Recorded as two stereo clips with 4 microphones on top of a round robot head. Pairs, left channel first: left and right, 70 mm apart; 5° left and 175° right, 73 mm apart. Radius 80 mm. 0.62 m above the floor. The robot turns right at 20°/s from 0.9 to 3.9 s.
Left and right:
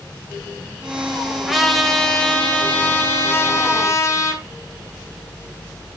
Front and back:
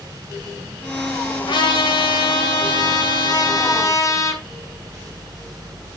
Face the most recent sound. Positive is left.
turn(degrees=45)